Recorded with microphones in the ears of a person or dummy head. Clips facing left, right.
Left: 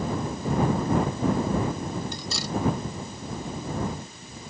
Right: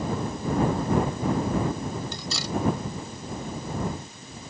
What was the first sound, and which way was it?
Cutlery clinking, 70° right (ahead or behind).